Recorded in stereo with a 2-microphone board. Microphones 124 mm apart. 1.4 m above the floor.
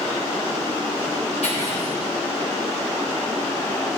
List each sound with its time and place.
1.4 s cutlery clinking: 70° left (ahead or behind), 3.5 m